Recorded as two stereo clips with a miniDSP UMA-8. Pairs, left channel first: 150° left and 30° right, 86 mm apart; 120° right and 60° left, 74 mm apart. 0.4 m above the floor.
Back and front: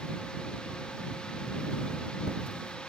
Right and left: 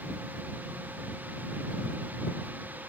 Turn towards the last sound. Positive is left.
No sound to turn to.